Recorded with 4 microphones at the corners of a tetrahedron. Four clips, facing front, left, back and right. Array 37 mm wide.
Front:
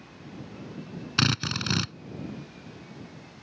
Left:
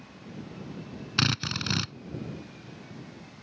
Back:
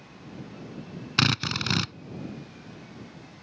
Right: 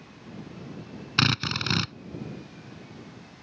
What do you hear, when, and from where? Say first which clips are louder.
1.2 s a drill: right 3 dB, back 1 dB; 115° right